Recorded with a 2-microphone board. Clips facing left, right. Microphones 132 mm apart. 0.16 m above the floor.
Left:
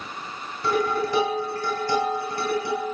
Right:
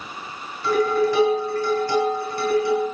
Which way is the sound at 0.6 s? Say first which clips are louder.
Right 4 dB; 20° left (ahead or behind).